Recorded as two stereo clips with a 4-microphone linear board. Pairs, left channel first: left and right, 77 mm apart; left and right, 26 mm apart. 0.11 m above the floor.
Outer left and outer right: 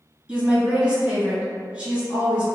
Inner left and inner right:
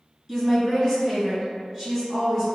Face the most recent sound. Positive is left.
turn(degrees=-15)  # may be behind; listen again after turning